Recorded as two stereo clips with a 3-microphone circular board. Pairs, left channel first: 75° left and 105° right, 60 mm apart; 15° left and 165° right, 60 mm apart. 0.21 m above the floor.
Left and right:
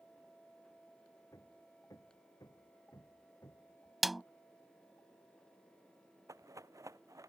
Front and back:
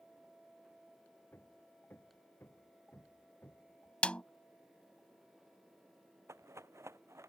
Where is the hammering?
65° left.